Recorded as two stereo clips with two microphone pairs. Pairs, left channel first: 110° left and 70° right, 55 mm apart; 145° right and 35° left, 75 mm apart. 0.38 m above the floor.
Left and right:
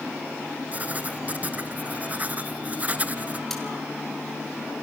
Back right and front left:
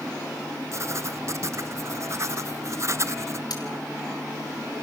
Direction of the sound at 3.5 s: 170° right.